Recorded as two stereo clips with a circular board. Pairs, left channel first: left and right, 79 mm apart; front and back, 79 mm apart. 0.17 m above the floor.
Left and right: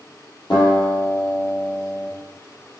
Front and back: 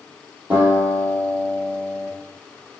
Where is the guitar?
110° left, 3.5 m.